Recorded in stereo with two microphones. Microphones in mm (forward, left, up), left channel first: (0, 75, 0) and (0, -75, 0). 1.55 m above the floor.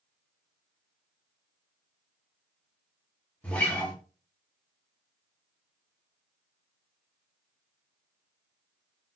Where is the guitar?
10° left (ahead or behind), 0.8 m.